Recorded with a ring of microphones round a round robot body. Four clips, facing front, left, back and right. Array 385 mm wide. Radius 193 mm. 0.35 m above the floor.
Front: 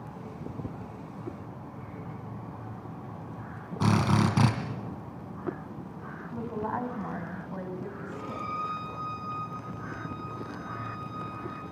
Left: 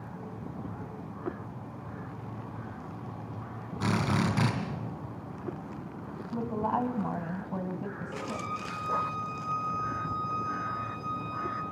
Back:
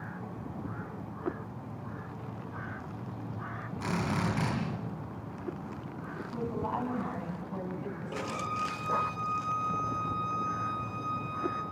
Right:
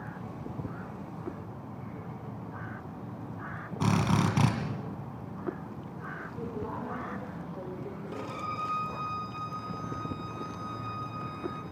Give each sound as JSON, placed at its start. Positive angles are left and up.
{"t": 3.8, "sound": "a drill", "azimuth_deg": -25, "distance_m": 3.0}
{"t": 6.3, "sound": "a woman speaking", "azimuth_deg": 75, "distance_m": 2.5}
{"t": 8.1, "sound": "a violin", "azimuth_deg": -145, "distance_m": 5.0}